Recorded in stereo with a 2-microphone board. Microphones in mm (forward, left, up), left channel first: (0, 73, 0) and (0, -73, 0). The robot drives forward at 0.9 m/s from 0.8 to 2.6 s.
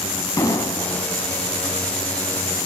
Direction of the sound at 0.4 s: 25° left (ahead or behind).